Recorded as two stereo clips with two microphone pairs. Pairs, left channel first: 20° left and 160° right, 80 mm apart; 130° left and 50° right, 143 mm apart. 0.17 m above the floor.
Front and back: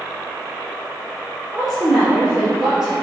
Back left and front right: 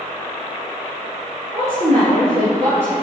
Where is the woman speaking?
75° right, 3.5 m.